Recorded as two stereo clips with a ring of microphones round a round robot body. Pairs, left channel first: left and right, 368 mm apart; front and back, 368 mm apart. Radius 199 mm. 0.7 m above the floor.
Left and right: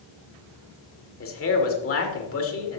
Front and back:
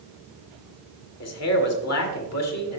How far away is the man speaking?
About 1.9 m.